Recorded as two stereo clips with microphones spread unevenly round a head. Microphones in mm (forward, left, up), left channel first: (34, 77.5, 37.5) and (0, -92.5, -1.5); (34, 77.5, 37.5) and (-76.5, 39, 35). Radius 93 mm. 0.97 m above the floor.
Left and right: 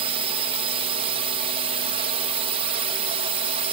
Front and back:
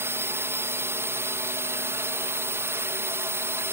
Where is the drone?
100° right.